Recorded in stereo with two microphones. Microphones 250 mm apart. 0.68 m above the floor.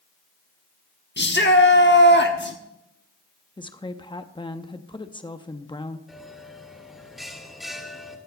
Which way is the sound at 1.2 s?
45° left (ahead or behind).